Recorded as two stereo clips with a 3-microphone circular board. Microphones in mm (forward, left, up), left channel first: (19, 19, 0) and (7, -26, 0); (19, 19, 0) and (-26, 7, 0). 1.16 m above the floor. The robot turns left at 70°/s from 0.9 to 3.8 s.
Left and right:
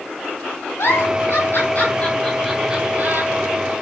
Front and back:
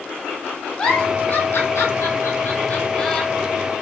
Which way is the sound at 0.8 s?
85° left.